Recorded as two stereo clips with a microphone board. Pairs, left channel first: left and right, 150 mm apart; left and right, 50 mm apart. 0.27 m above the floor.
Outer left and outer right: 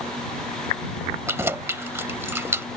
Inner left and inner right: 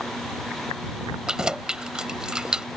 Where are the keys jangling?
15° right (ahead or behind).